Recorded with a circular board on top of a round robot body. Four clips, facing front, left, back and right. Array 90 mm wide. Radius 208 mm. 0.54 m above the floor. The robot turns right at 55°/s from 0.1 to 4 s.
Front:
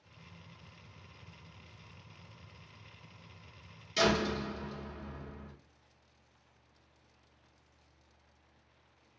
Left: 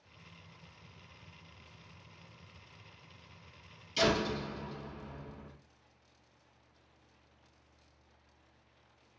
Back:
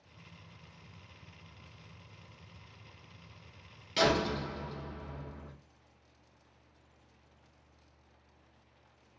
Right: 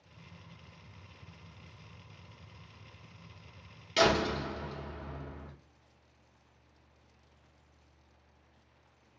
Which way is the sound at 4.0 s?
115° right.